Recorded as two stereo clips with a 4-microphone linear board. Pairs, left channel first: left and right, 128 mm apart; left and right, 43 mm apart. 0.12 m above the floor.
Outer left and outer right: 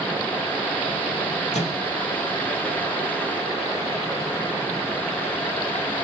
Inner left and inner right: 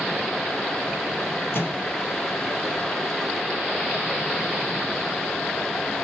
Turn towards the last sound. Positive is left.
turn(degrees=60)  # may be behind; listen again after turning